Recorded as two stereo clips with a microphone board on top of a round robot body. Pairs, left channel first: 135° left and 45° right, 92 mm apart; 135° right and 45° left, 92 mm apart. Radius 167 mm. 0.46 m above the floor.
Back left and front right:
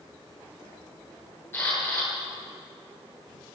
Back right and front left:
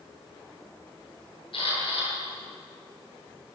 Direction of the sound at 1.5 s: 155° right.